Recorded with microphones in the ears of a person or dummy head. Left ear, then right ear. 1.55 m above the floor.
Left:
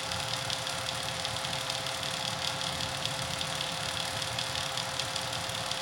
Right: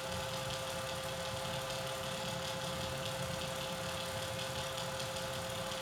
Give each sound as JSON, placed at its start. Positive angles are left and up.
{"t": 0.0, "sound": "a fan", "side_deg": 50, "distance_m": 0.9}